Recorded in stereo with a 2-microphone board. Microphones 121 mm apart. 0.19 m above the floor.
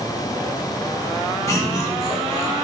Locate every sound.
1.5 s laughter: 25° left (ahead or behind), 1.9 m; by 2.5 s 20° left (ahead or behind), 2.5 m